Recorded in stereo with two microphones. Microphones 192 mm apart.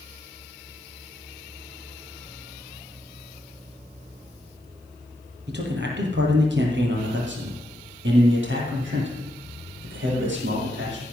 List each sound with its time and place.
5.5 s a man speaking: 65° right (ahead or behind), 4 m; by 11.0 s 70° right (ahead or behind), 5.5 m